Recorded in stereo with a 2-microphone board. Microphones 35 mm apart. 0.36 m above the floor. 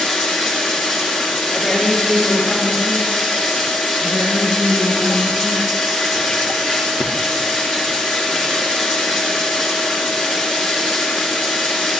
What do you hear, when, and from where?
0.0 s running water: 5° right (ahead or behind), 4 m
1.5 s a woman speaking: centre (ahead or behind), 10 m
4.0 s a woman speaking: 45° right (ahead or behind), 4 m